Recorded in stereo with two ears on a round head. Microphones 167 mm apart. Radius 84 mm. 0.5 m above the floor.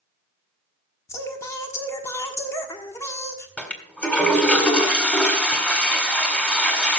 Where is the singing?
15° left (ahead or behind), 1.3 m.